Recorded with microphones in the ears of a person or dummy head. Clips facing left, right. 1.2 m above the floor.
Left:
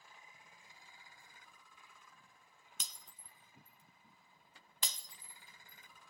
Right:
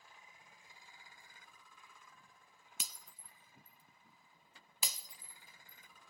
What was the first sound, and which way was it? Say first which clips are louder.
Breaking glass: right 2 dB; 5° right (ahead or behind).